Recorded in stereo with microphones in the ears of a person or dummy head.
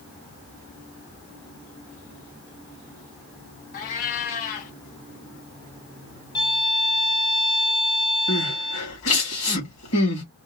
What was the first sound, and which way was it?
A cat meowing, 50° left (ahead or behind).